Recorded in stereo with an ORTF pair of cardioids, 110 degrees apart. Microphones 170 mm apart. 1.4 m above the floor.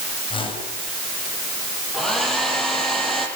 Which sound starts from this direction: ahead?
A hair dryer, at 1.9 s.